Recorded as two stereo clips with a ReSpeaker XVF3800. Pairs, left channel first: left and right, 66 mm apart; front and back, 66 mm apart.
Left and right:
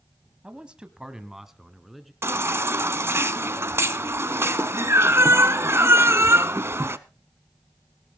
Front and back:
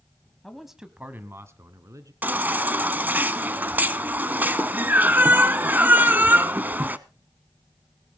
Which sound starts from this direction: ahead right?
A man speaking, at 0.4 s.